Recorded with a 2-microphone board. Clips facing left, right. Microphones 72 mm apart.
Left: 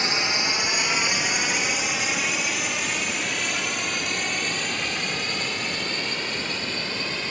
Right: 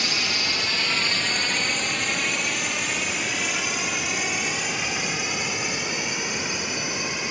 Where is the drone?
25° left (ahead or behind); by 7.3 s 15° right (ahead or behind).